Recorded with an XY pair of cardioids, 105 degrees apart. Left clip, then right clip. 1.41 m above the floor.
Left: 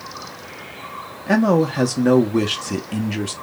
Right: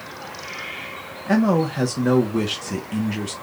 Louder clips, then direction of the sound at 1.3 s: Left 3 dB; 20° left.